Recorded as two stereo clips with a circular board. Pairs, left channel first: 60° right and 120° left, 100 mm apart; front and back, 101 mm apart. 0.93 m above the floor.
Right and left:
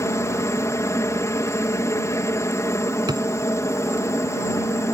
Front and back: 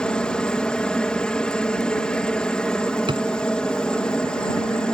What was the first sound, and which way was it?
A helicopter, 70° right.